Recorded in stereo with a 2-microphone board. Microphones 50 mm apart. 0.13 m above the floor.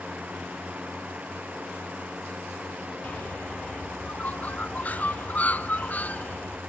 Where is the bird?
35° left (ahead or behind).